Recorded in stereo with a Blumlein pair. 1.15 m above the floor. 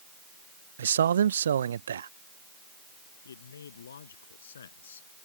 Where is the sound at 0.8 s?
65° right.